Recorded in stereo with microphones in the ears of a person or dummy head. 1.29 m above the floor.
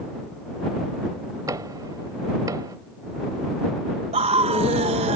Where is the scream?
35° right (ahead or behind).